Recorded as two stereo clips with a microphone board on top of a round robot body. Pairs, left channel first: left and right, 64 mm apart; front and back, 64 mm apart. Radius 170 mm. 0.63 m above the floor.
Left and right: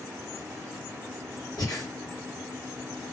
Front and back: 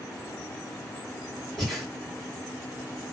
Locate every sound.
1.6 s breathing: 90° left, 2 m